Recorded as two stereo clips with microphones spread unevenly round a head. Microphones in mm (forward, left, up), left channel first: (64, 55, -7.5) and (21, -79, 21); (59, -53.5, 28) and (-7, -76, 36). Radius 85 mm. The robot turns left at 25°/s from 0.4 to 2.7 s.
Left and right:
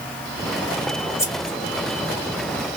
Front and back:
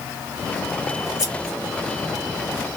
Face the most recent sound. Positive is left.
turn(degrees=-40)